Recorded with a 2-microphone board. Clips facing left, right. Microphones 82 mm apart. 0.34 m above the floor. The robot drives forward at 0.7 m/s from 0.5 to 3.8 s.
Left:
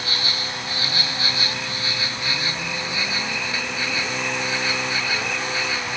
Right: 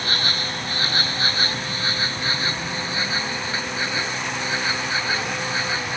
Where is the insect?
50° right (ahead or behind); by 6.0 s 35° right (ahead or behind).